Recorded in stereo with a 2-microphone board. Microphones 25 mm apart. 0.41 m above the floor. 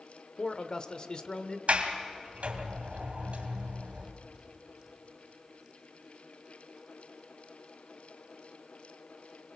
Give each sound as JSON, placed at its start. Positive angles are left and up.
{"t": 0.4, "sound": "a man speaking", "side_deg": 35, "distance_m": 1.1}
{"t": 1.7, "sound": "a sliding door", "side_deg": -65, "distance_m": 2.5}